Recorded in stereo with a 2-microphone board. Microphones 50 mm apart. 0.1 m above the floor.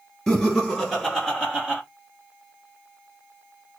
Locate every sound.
0.3 s laughter: 5° left (ahead or behind), 1.5 m; by 1.8 s 15° right (ahead or behind), 1.4 m